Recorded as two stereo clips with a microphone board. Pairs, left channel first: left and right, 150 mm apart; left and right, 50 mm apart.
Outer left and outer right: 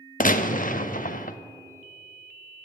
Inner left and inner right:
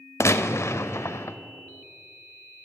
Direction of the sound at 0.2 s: 65° left (ahead or behind).